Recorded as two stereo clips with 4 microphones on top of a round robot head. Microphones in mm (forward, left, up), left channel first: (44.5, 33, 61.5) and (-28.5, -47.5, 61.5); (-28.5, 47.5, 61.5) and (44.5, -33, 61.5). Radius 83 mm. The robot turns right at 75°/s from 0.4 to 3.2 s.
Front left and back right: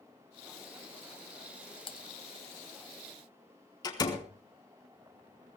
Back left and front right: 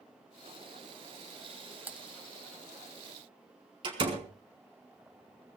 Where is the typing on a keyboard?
20° left, 1.2 m; by 2.0 s 35° left, 1.2 m.